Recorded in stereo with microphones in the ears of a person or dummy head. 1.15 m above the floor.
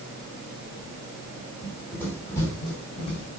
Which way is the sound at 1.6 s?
Centre (ahead or behind).